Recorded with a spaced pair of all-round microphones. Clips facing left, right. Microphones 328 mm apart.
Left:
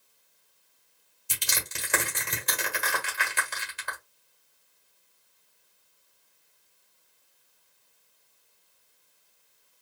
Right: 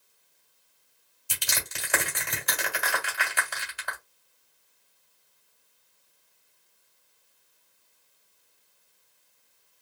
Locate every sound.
1.3 s crushing: 25° left (ahead or behind), 1.8 m